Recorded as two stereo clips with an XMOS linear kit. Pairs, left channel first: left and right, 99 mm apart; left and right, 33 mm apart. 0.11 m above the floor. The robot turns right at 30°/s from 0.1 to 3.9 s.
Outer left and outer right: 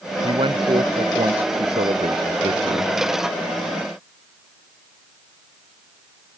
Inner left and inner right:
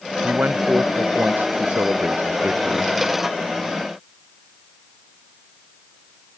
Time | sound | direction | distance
0.2 | a man speaking | 125° right | ?